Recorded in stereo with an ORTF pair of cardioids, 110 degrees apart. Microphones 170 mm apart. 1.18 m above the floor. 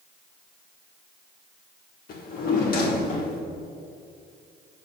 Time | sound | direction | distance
2.1 | a drawer | 65° left | 1.8 m